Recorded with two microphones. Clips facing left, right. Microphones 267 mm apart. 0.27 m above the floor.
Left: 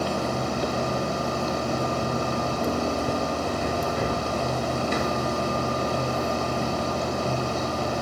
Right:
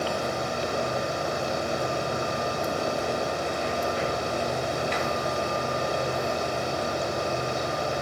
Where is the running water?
45° left (ahead or behind), 1.3 m.